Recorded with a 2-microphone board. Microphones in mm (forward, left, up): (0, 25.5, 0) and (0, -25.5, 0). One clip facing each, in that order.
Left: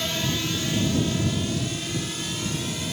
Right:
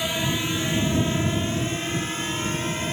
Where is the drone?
15° right (ahead or behind); by 2.9 s 40° right (ahead or behind).